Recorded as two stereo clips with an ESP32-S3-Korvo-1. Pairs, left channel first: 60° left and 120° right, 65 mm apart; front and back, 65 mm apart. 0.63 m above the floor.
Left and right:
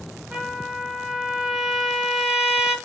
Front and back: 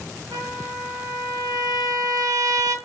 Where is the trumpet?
165° left, 0.6 m.